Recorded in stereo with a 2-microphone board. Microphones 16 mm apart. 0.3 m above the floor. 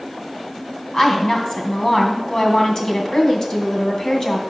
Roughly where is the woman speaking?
Left.